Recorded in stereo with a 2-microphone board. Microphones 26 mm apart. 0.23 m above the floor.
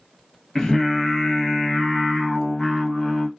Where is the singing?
15° left (ahead or behind), 0.9 m.